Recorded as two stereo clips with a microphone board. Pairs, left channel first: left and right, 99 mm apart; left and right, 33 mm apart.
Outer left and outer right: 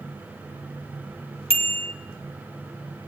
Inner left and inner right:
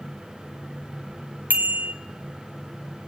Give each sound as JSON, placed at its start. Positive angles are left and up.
{"t": 1.5, "sound": "a bicycle bell", "side_deg": -75, "distance_m": 2.0}